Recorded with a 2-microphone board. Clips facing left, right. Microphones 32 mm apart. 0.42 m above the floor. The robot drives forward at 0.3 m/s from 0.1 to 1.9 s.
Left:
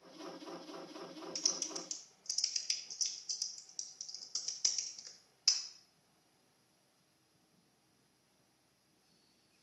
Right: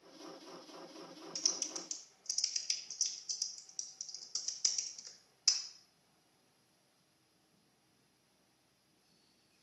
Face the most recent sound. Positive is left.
turn(degrees=15)  # may be behind; listen again after turning